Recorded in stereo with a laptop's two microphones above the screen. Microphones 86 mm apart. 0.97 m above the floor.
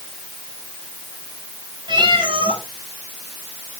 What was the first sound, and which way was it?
A cat meowing, 65° right (ahead or behind).